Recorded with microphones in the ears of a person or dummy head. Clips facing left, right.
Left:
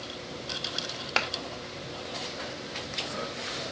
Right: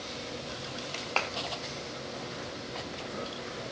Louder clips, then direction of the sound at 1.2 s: Left 1 dB; 20° left (ahead or behind).